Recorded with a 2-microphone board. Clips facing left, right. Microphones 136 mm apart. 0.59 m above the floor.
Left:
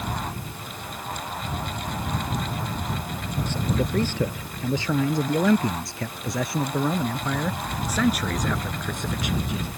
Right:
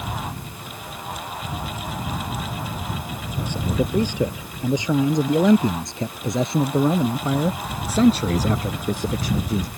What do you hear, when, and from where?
3.5 s a man speaking: 15° right (ahead or behind); by 9.7 s 35° right (ahead or behind)